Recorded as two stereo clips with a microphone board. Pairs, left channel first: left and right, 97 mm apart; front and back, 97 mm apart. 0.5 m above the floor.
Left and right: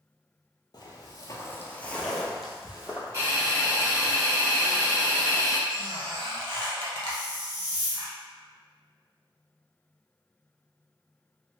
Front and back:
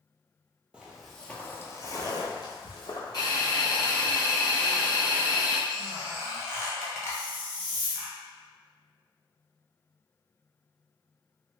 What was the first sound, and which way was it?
Footsteps, 105° left.